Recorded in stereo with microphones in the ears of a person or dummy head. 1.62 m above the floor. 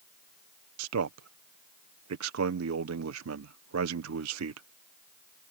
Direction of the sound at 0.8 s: 80° right.